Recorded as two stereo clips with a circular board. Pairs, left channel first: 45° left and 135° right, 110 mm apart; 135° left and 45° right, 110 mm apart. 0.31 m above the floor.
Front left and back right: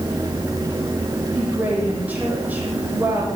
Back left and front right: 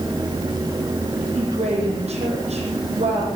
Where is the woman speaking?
60° right, 9.5 m.